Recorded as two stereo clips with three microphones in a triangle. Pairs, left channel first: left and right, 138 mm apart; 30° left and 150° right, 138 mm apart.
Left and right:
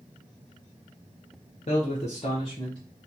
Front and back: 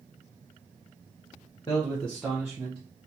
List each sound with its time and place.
1.7 s a man speaking: 75° left, 0.7 m; by 2.8 s 145° left, 1.0 m